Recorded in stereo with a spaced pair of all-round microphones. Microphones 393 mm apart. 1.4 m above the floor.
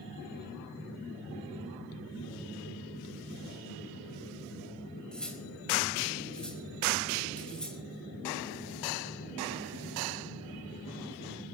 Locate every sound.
5.1 s cutlery clinking: centre (ahead or behind), 4 m